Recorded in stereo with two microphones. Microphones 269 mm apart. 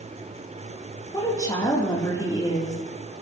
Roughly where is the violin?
I don't hear a violin.